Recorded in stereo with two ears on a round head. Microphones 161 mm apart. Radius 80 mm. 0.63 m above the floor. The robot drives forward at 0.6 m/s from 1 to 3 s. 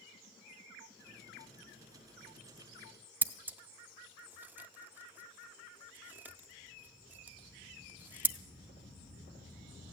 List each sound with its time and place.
3.2 s scissors: 10° right (ahead or behind), 0.5 m